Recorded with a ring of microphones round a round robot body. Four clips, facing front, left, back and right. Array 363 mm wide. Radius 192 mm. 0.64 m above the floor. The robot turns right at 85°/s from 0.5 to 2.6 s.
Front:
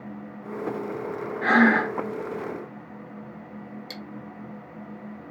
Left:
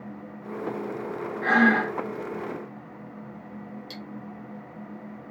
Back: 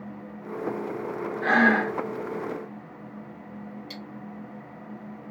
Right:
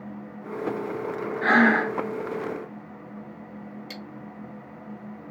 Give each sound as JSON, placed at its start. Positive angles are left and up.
{"t": 1.4, "sound": "breathing", "azimuth_deg": -55, "distance_m": 1.0}
{"t": 3.9, "sound": "cutlery clinking", "azimuth_deg": -35, "distance_m": 0.6}